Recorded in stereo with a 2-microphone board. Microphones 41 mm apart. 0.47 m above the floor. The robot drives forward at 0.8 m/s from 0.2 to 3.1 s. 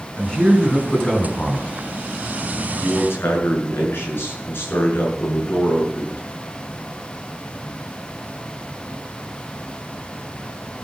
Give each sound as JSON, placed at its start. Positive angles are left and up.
{"t": 0.2, "sound": "a man speaking", "side_deg": 20, "distance_m": 5.0}
{"t": 2.8, "sound": "a man speaking", "side_deg": 75, "distance_m": 7.5}